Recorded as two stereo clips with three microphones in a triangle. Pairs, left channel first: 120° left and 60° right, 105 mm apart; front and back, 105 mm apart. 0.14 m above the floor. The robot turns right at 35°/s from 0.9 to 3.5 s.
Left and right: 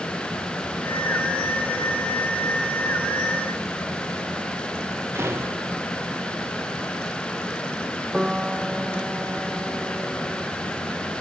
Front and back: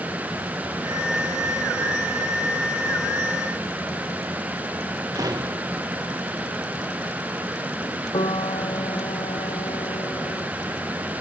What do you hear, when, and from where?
5.2 s a door slam: 125° right
8.1 s a piano: 20° left